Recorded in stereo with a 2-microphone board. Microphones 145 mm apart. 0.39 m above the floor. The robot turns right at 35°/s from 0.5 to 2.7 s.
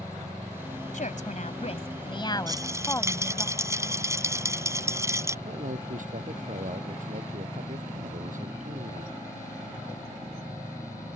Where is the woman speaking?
95° left; by 3.5 s 160° left.